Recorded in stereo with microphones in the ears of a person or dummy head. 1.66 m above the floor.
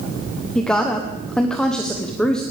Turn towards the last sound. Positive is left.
turn(degrees=0)  # may be behind; listen again after turning